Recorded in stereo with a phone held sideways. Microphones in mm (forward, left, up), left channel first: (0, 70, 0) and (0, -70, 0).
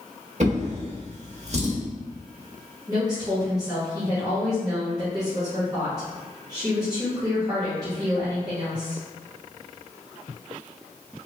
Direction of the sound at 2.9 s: 25° right (ahead or behind).